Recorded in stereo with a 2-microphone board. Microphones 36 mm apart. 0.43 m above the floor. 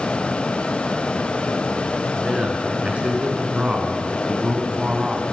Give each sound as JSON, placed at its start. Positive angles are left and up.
{"t": 2.1, "sound": "a man speaking", "side_deg": -35, "distance_m": 4.0}